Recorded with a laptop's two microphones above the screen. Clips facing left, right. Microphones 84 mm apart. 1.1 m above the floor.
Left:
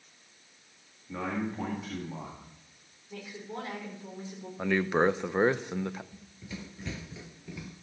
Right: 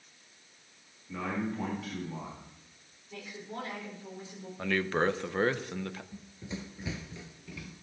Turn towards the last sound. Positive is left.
turn(degrees=25)  # may be behind; listen again after turning